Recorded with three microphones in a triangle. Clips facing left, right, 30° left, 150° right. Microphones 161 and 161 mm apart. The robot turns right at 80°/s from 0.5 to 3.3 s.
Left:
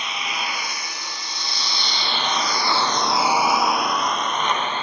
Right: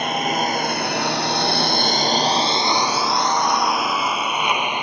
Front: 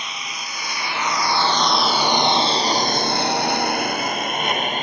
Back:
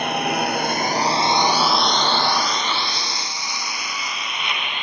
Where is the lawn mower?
125° right; by 4.8 s 15° right.